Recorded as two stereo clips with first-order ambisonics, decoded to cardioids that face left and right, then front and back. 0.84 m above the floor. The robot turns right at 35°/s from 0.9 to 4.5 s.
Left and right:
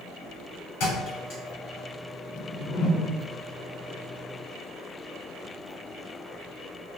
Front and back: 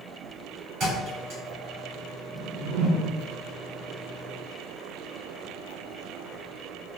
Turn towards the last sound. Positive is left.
turn(degrees=-145)